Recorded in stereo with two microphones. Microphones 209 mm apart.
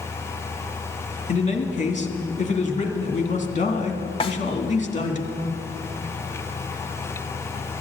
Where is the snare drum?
25° left (ahead or behind), 1.0 m.